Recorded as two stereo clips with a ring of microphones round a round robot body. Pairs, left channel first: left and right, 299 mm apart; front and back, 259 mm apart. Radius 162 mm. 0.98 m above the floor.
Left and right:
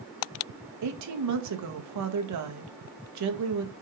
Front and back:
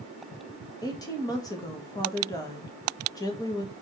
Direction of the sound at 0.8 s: 75° right.